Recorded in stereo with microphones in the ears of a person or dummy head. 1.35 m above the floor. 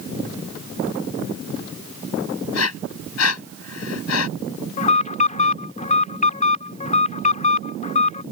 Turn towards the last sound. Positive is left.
turn(degrees=45)  # may be behind; listen again after turning